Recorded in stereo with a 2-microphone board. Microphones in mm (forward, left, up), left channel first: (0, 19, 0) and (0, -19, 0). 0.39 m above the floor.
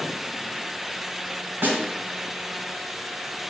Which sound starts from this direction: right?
A snare drum, at 1.6 s.